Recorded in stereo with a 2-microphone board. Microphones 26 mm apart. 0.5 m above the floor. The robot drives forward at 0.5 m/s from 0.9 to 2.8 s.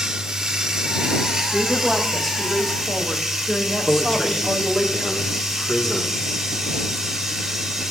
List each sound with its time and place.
0.0 s running water: 20° right (ahead or behind), 1.3 m; by 7.9 s 15° right (ahead or behind), 2 m
1.5 s a woman speaking: 5° left (ahead or behind), 1.7 m; by 4.9 s centre (ahead or behind), 2 m
3.9 s a man speaking: 15° left (ahead or behind), 1.3 m